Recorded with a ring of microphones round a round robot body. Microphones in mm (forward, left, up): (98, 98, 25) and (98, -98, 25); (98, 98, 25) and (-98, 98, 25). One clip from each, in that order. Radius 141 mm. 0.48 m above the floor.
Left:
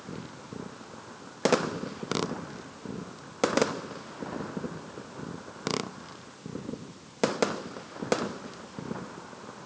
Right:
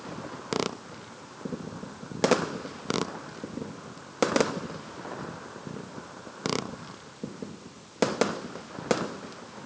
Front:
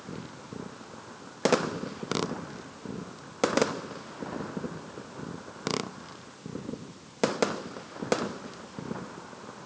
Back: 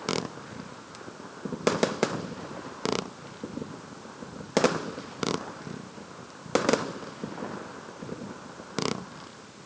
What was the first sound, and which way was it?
Only background noise.